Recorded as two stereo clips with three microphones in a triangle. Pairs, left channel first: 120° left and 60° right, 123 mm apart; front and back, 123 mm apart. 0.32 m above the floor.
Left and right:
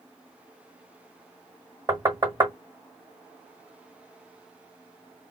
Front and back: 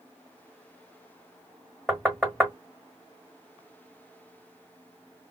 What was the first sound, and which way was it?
Knocking, 85° right.